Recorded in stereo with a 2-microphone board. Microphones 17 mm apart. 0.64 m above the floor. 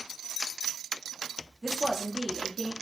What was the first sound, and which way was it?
A woman speaking, 25° right (ahead or behind).